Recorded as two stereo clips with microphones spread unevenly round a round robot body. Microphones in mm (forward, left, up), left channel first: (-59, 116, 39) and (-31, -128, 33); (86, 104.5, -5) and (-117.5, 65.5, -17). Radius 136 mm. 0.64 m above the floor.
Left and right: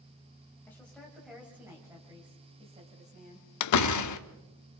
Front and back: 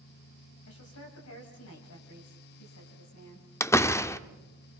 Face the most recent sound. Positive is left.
turn(degrees=90)